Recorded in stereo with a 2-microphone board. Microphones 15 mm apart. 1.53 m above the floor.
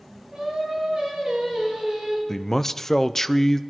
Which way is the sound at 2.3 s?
25° left (ahead or behind).